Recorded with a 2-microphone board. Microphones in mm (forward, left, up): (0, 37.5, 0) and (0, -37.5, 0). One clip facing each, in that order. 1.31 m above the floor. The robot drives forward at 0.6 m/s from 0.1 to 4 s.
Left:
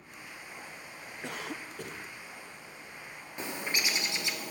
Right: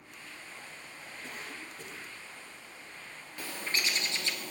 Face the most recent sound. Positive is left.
turn(degrees=15)  # may be behind; listen again after turning